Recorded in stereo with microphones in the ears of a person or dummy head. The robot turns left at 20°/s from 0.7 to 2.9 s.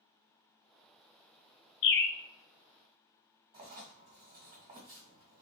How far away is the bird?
About 0.6 m.